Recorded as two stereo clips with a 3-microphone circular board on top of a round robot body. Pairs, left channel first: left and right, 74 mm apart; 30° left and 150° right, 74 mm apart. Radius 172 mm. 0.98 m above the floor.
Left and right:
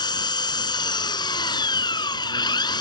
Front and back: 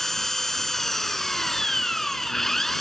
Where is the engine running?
115° left.